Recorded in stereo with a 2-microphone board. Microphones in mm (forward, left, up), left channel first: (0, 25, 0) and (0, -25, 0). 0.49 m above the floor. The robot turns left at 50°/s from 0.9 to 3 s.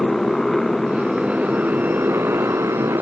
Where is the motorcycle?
5° left; by 3.0 s 100° right.